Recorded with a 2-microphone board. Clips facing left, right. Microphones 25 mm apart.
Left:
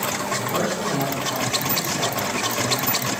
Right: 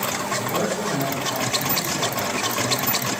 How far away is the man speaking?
About 1.7 m.